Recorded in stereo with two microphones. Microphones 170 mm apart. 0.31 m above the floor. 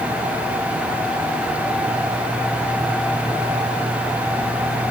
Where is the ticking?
I don't hear ticking.